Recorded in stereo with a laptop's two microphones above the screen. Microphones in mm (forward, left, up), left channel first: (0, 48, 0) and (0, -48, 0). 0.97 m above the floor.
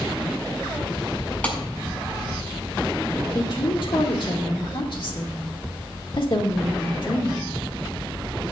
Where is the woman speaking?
60° left (ahead or behind), 2 m.